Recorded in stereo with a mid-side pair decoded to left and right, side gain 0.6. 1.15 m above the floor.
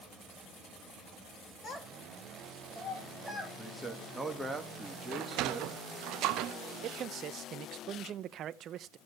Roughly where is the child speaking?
Ahead left.